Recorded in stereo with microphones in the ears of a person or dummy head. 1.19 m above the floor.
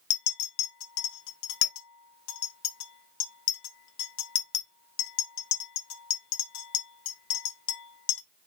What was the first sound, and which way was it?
A clink, 85° left.